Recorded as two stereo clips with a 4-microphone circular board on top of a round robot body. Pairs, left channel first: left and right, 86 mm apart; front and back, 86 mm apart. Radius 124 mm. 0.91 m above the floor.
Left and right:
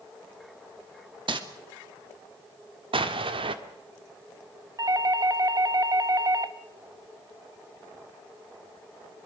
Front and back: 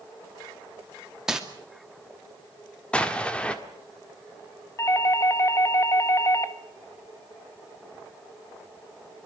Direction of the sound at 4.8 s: 50° right.